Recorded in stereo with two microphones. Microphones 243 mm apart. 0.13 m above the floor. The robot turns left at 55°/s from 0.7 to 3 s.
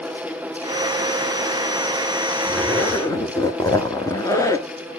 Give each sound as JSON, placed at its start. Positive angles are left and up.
{"t": 2.5, "sound": "a zipper", "side_deg": -5, "distance_m": 1.0}